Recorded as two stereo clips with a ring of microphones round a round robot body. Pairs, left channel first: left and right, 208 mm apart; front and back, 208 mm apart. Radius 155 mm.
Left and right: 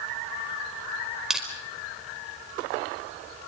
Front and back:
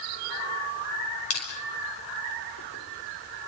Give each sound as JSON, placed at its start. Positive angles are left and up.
{"t": 1.3, "sound": "crushing", "azimuth_deg": 0, "distance_m": 5.0}